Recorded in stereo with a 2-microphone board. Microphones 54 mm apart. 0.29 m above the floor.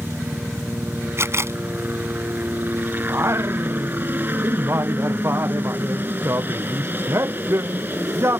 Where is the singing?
55° right (ahead or behind).